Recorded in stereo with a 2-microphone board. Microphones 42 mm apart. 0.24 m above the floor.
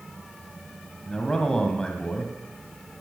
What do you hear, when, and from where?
1.1 s a man speaking: 20° left (ahead or behind), 1.5 m